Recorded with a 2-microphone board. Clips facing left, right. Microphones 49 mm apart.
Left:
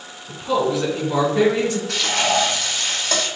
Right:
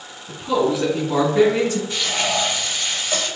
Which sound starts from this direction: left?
Frying, at 1.9 s.